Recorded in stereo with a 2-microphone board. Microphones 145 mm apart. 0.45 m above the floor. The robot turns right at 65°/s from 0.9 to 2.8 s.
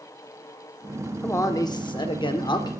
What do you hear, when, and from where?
1.2 s a man speaking: 25° left, 0.8 m; by 2.7 s 125° left, 0.8 m